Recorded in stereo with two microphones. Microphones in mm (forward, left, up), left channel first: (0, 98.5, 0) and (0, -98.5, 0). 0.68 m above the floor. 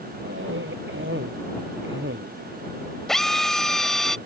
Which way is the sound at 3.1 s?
Centre (ahead or behind).